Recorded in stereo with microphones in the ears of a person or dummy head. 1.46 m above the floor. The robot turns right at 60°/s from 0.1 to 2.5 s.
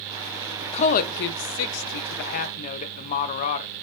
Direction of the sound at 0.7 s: 35° left (ahead or behind).